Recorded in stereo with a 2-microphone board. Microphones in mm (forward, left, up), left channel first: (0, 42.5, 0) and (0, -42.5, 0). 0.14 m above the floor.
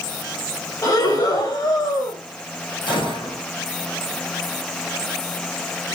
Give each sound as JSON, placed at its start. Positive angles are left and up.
{"t": 0.8, "sound": "breathing", "side_deg": 45, "distance_m": 3.0}
{"t": 2.9, "sound": "a gunshot", "side_deg": 70, "distance_m": 6.0}